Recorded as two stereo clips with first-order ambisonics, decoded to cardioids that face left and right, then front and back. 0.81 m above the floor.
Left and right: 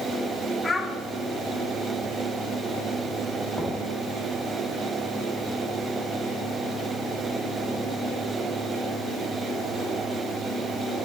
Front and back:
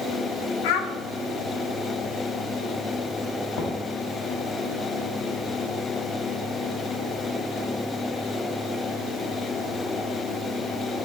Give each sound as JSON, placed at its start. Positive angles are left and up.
{"t": 0.6, "sound": "a child speaking", "azimuth_deg": 10, "distance_m": 1.2}
{"t": 3.5, "sound": "knocking", "azimuth_deg": 10, "distance_m": 1.7}